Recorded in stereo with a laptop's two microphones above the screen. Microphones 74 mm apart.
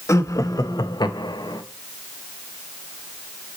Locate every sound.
0.1 s laughter: 40° left (ahead or behind), 1.3 m; by 1.6 s 60° left (ahead or behind), 0.9 m